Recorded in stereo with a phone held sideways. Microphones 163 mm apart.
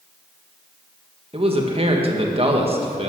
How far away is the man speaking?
About 1.6 m.